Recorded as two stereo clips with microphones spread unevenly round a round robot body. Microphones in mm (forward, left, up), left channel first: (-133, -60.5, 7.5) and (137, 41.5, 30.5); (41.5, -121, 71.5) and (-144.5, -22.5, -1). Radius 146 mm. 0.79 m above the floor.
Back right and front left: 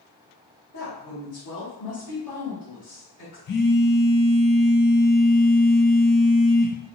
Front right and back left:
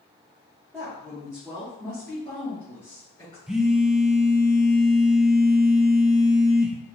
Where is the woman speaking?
140° right, 1.9 m; by 3.4 s 105° right, 3 m.